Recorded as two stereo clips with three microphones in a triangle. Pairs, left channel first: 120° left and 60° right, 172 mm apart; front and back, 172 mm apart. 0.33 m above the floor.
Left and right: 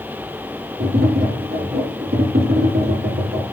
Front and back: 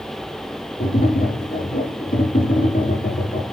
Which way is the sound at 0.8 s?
40° right.